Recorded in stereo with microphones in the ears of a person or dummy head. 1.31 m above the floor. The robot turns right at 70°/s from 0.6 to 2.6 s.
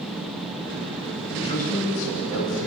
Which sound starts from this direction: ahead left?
A man speaking, at 1.3 s.